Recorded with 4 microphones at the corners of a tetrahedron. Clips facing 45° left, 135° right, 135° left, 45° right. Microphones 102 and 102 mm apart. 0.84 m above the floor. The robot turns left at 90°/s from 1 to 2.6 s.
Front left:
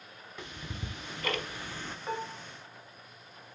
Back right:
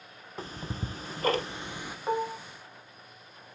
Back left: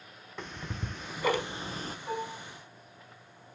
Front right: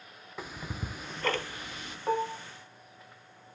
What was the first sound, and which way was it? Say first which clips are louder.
Ticking: back right 5 dB, even; 125° right.